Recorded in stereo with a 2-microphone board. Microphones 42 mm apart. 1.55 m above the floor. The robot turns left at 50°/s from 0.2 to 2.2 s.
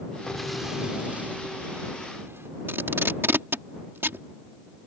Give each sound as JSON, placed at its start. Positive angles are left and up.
{"t": 0.3, "sound": "an explosion", "azimuth_deg": 10}
{"t": 2.7, "sound": "tape being pulled", "side_deg": -75}